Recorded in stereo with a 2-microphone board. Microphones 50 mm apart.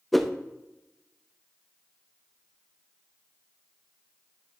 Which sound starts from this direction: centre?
A whoosh, at 0.1 s.